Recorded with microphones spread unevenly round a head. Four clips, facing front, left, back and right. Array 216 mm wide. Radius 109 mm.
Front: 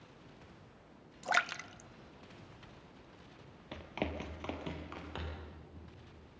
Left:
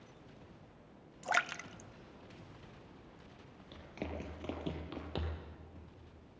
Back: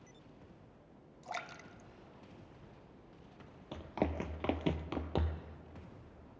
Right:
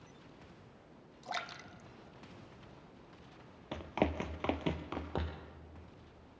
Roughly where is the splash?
Ahead left.